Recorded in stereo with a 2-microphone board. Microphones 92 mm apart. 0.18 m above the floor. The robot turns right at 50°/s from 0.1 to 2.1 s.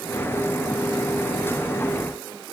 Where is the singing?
No singing in this recording.